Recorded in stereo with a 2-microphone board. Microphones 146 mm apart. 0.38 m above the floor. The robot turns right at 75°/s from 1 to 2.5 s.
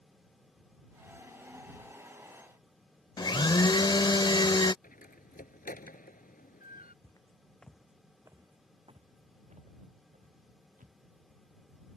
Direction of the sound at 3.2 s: 30° left (ahead or behind).